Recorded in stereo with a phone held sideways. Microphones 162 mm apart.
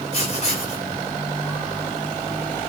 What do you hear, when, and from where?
0.1 s writing: 45° left (ahead or behind), 4.5 m